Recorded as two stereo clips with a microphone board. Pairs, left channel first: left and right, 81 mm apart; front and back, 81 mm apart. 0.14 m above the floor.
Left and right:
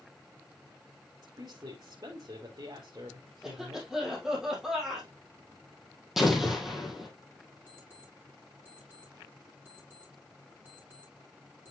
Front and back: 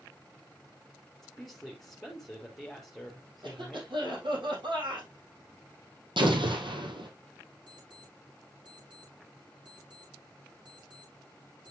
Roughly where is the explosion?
Behind.